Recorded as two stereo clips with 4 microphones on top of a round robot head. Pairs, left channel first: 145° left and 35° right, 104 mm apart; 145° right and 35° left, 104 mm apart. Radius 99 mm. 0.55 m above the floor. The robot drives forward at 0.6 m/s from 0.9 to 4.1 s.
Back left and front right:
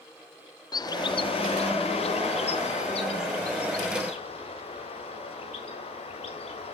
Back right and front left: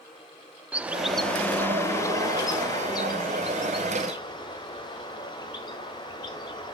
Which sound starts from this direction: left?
A bird, at 0.7 s.